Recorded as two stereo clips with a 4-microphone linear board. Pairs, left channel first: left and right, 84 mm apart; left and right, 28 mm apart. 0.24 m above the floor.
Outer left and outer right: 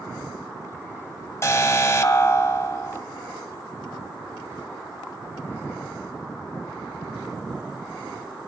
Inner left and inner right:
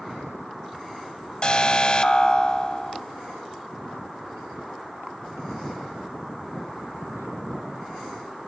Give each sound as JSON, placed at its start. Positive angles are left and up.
{"t": 1.4, "sound": "an alarm", "side_deg": 35, "distance_m": 1.9}